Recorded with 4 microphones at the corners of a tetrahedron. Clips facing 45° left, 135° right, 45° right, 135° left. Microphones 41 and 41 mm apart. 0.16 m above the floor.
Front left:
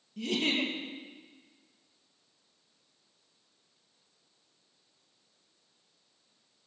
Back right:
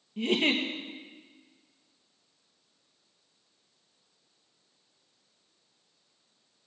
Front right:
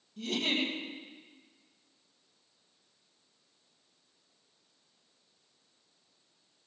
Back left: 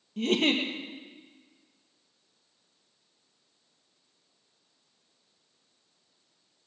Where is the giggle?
165° left, 2.5 m.